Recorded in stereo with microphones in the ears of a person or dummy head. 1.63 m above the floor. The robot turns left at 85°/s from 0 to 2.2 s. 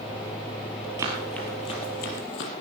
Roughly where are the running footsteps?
Centre.